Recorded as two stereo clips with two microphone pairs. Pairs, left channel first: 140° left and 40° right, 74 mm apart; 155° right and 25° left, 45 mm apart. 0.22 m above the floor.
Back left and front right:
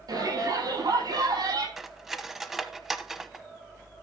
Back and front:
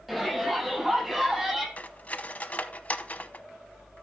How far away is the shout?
About 9 m.